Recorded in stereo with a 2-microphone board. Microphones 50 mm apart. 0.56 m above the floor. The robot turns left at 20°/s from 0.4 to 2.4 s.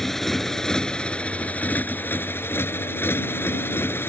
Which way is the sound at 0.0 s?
175° left.